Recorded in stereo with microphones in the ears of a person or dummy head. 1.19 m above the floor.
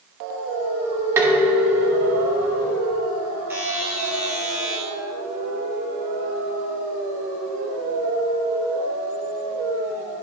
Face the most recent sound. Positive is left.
turn(degrees=-5)  # may be behind; listen again after turning